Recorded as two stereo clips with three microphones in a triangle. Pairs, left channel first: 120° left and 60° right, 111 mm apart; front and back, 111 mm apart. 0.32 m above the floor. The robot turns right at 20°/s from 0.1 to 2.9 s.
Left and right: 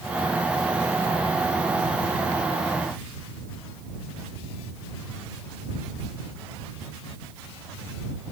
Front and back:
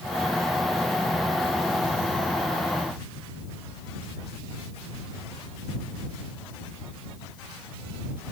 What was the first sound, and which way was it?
Only background noise.